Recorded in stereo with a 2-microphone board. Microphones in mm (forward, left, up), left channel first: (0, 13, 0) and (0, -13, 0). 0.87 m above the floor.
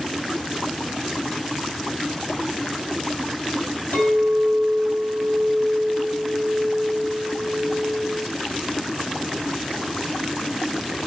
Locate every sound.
3.9 s a clink: 90° left, 3 m